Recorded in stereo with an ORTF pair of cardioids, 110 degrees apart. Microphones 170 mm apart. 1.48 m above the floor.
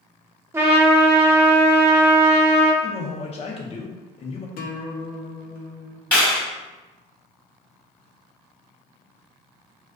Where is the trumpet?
15° right, 0.7 m.